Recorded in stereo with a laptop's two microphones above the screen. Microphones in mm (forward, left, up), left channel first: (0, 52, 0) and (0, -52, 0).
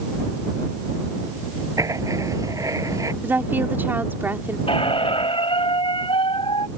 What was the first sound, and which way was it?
Writing, 35° right (ahead or behind).